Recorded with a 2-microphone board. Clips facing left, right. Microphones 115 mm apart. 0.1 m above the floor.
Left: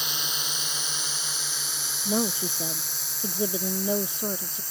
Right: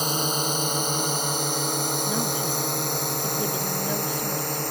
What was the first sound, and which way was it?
A drone, 45° right (ahead or behind).